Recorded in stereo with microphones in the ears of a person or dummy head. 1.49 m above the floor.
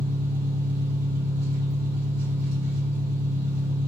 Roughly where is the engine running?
Right.